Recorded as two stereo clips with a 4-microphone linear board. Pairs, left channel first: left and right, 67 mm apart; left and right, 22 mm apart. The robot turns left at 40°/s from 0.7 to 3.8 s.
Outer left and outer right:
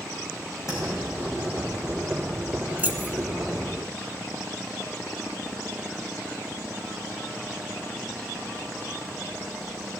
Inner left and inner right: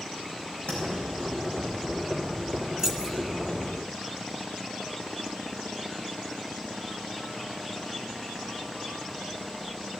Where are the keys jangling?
25° right (ahead or behind), 0.8 m.